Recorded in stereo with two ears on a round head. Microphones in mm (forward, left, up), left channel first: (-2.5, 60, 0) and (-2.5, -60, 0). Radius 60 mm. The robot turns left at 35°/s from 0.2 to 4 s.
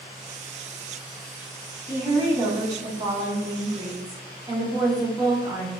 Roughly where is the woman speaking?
Centre.